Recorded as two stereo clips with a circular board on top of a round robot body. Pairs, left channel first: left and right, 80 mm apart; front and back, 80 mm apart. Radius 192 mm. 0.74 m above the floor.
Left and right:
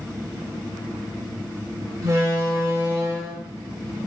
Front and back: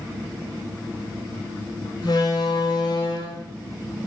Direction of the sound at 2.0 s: 40° right.